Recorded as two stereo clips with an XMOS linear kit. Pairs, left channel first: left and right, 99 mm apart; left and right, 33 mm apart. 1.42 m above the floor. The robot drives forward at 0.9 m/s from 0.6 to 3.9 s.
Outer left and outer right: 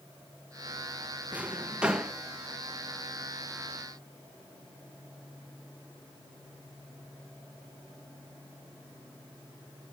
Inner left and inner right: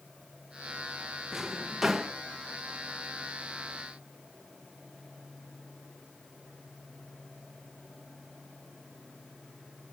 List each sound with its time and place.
1.3 s a drawer: 15° right (ahead or behind), 0.7 m; by 2.1 s 10° right (ahead or behind), 1.3 m